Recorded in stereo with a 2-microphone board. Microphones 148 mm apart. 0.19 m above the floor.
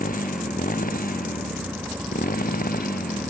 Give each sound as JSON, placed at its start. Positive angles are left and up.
{"t": 0.0, "sound": "a motorcycle", "side_deg": 70}